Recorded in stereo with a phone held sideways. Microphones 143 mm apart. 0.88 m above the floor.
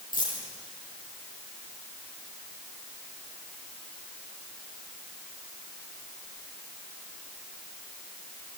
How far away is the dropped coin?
About 9.5 m.